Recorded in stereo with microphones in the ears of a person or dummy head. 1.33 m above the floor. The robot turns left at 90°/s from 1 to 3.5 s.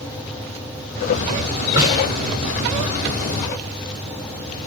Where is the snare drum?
20° right (ahead or behind), 8 m; by 2.0 s 5° left (ahead or behind), 8 m.